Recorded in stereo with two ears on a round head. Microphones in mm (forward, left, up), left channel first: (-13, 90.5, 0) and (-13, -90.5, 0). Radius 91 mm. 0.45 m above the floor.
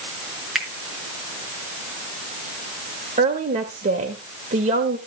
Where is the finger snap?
Centre (ahead or behind), 4 m.